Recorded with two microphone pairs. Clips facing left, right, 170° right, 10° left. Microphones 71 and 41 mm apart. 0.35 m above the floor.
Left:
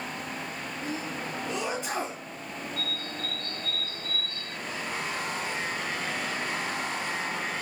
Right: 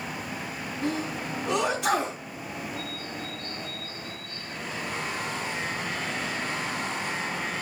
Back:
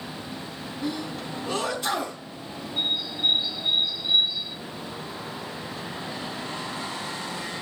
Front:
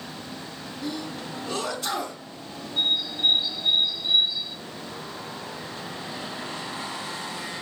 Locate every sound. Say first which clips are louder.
0.8 s a sneeze: right 5 dB, back 2 dB; 105° right, 3.5 m
2.8 s a bird: even, front 2 dB; 90° left, 1.9 m